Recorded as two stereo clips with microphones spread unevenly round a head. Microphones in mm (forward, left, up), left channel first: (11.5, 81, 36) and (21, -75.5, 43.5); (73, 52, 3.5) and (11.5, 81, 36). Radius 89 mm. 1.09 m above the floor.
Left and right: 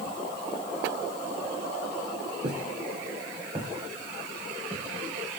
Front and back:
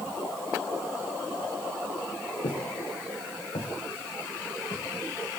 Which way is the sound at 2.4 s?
45° right.